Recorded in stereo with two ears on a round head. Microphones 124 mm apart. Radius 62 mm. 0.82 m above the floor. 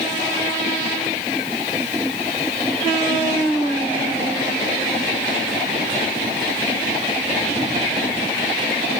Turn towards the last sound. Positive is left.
No sound to turn to.